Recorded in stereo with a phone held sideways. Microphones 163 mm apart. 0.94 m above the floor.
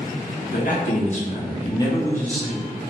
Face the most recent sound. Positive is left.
turn(degrees=0)  # may be behind; listen again after turning